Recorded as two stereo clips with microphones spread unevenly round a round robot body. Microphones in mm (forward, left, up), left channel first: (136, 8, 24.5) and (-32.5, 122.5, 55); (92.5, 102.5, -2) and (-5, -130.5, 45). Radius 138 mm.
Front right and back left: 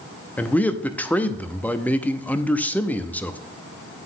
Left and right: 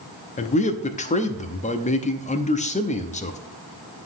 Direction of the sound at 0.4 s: 35° left.